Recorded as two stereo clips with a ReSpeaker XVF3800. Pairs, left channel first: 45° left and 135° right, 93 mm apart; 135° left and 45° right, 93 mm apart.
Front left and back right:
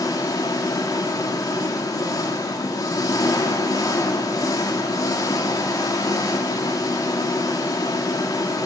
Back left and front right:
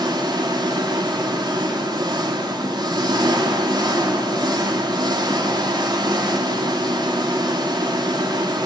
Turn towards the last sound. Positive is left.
turn(degrees=-5)